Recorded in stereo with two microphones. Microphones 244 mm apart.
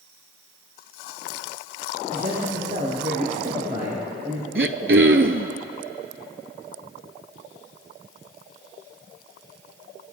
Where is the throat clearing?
55° right (ahead or behind), 0.5 m.